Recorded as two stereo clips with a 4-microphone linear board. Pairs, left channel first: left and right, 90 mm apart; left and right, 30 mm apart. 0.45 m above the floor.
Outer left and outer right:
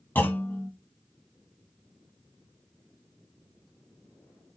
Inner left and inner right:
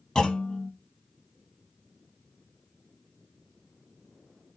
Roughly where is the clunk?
Left.